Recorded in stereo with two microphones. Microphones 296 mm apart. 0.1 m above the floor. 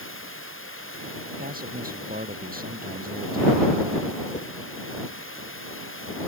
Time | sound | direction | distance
0.0 | running water | 40° left (ahead or behind) | ?
1.4 | a man speaking | 25° right (ahead or behind) | ?
4.3 | a whoosh | 20° left (ahead or behind) | ?